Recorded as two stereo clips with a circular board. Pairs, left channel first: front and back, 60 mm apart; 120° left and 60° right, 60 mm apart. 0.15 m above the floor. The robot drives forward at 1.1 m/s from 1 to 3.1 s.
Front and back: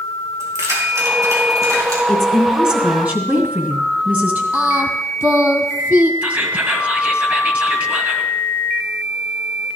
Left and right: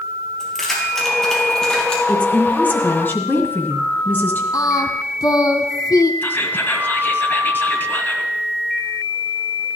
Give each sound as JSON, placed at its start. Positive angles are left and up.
{"t": 0.4, "sound": "keys jangling", "azimuth_deg": -155, "distance_m": 3.0}
{"t": 2.1, "sound": "a woman speaking", "azimuth_deg": 65, "distance_m": 1.6}
{"t": 4.5, "sound": "singing", "azimuth_deg": 125, "distance_m": 1.0}
{"t": 6.2, "sound": "whispering", "azimuth_deg": 140, "distance_m": 1.6}